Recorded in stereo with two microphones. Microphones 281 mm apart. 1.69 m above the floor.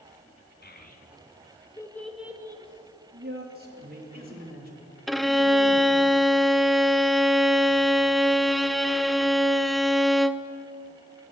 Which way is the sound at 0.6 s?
35° left (ahead or behind).